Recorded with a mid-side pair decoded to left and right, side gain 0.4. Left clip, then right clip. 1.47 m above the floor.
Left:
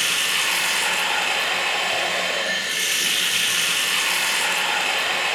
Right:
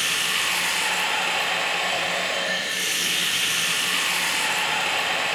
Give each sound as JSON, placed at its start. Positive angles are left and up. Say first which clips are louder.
{"t": 0.0, "sound": "running water", "louder": "left 2 dB", "azimuth_deg": 55, "distance_m": 4.0}